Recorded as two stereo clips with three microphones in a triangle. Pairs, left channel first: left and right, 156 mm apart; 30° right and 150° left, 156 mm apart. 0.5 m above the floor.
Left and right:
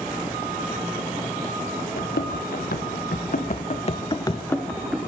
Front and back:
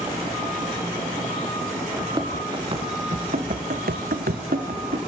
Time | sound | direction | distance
2.0 | running footsteps | 85° left | 3.5 m